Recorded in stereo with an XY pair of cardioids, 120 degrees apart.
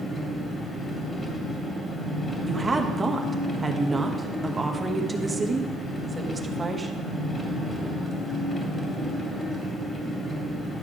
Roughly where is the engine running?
Ahead left.